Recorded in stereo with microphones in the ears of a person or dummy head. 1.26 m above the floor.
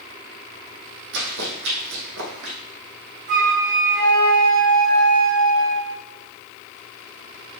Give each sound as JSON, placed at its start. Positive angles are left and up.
{"t": 1.1, "sound": "running footsteps", "side_deg": -70, "distance_m": 3.5}
{"t": 3.3, "sound": "a flute", "side_deg": -60, "distance_m": 3.5}